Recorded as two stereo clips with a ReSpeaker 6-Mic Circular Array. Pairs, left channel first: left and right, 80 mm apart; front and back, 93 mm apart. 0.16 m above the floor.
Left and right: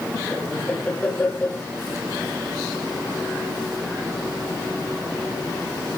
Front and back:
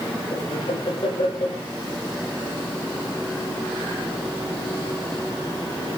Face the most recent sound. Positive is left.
turn(degrees=15)